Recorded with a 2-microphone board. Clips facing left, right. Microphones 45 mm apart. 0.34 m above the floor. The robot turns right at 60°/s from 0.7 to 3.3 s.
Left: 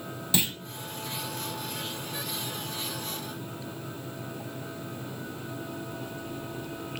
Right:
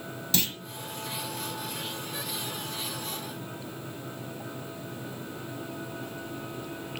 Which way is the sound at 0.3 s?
15° left (ahead or behind).